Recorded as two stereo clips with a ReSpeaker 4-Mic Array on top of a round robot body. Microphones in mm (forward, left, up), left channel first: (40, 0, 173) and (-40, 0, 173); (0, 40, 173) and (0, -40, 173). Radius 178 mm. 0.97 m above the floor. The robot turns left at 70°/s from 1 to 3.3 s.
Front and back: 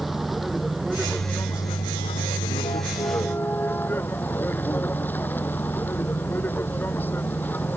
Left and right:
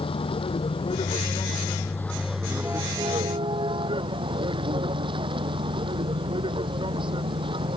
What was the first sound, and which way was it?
A vehicle, 90° left.